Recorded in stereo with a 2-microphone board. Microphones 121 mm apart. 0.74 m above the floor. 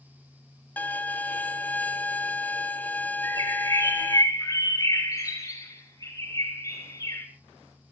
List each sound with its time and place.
0.8 s a violin: 15° left (ahead or behind), 1.4 m
3.2 s a bird: 30° left (ahead or behind), 6 m